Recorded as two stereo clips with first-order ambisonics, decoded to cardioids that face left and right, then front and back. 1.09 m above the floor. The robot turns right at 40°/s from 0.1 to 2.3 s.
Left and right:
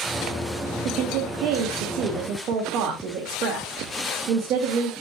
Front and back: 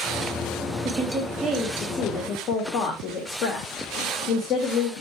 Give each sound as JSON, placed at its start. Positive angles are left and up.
{"t": 0.8, "sound": "a woman speaking", "azimuth_deg": -105, "distance_m": 1.8}